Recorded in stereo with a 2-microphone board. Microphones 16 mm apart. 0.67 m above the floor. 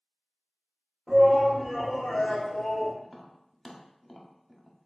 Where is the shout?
20° right (ahead or behind), 1.2 m; by 2.9 s 70° left (ahead or behind), 1.4 m.